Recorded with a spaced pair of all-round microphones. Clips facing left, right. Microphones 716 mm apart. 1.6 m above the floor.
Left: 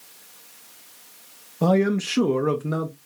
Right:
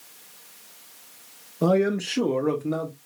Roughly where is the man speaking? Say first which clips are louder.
Left 1 dB; left.